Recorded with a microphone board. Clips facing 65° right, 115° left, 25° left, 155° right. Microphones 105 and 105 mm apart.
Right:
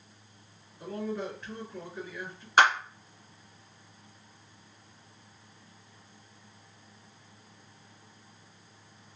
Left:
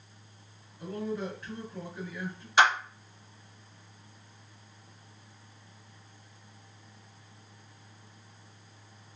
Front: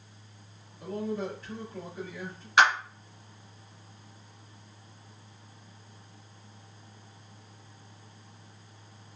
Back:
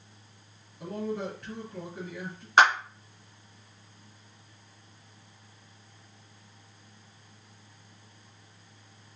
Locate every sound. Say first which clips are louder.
0.8 s a man speaking: even, even; 145° right, 2 m
2.6 s a clap: right 1 dB, back 2 dB; 110° right, 2.5 m